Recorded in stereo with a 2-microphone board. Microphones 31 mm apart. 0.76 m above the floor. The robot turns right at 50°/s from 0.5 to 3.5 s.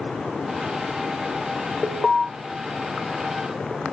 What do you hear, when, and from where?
1.8 s an alarm: centre (ahead or behind), 0.8 m; by 2.2 s 10° left (ahead or behind), 0.8 m